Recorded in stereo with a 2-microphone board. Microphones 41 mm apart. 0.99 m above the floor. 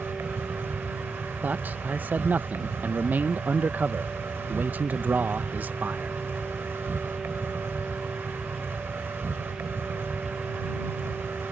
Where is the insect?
70° right (ahead or behind).